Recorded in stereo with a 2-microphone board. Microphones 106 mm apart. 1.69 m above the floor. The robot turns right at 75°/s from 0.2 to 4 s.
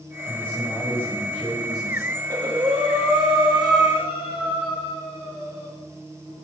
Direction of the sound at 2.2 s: 155° right.